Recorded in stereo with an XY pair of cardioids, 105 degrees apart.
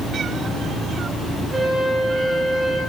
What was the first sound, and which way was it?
A flute, 15° right.